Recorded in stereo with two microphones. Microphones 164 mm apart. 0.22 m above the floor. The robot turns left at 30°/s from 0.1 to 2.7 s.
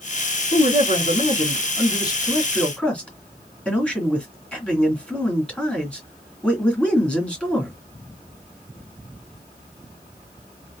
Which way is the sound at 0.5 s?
75° left.